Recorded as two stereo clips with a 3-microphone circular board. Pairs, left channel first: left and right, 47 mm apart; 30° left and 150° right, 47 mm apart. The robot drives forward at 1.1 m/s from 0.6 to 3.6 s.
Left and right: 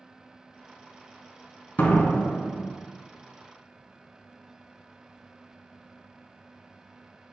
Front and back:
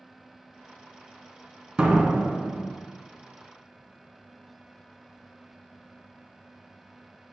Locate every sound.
1.8 s a door slam: 135° left, 2.5 m; by 2.7 s 150° left, 3 m